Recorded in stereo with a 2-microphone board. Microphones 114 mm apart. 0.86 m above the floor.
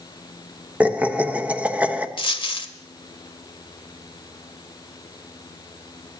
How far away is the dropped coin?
About 1.1 m.